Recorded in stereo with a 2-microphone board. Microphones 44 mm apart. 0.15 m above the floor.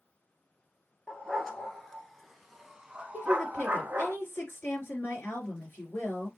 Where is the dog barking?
10° left (ahead or behind), 1.4 m; by 4.1 s 40° right (ahead or behind), 0.9 m.